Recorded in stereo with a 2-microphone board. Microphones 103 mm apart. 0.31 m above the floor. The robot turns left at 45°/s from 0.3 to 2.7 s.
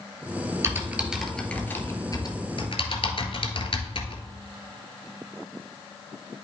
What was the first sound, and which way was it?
Typing on a keyboard, 30° right (ahead or behind).